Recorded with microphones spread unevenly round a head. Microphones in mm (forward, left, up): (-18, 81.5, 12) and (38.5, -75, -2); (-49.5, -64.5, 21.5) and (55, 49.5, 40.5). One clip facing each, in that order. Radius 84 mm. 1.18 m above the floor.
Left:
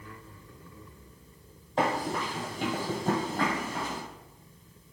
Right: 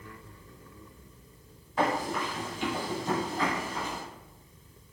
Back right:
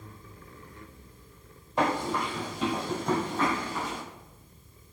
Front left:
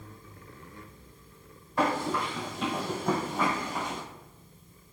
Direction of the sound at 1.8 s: 155° left.